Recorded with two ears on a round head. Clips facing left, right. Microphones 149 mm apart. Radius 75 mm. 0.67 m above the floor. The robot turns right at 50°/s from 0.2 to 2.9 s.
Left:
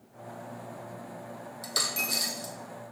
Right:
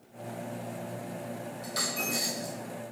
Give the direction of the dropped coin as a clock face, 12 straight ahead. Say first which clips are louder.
Right 1 dB; 9 o'clock.